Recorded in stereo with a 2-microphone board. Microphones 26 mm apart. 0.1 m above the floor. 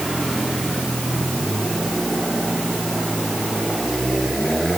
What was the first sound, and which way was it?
Only background noise.